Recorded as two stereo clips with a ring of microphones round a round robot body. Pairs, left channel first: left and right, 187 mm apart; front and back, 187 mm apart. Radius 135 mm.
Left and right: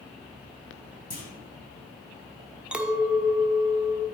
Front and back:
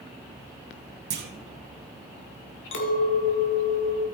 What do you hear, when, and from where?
1.1 s a clunk: 150° left, 1.3 m
2.7 s a clink: 5° right, 1.2 m